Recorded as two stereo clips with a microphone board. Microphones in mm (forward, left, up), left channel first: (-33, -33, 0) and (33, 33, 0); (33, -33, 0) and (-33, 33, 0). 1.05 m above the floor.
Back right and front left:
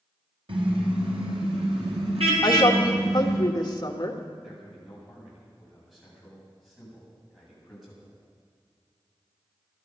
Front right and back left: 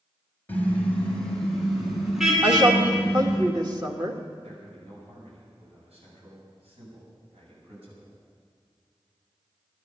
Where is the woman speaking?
Straight behind, 1.6 m.